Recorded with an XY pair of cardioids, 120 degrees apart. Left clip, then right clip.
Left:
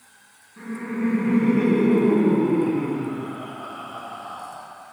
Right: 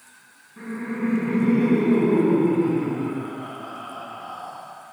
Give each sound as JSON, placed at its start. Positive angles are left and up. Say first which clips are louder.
{"t": 0.6, "sound": "laughter", "louder": "even", "azimuth_deg": -15, "distance_m": 1.6}